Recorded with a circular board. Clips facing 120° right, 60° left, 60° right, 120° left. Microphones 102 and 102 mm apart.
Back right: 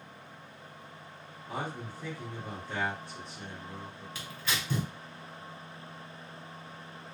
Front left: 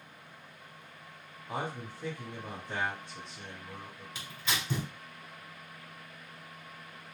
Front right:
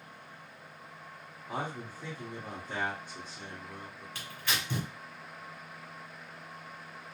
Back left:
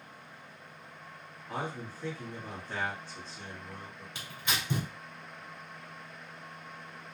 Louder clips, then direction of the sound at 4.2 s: Even, even; 85° left.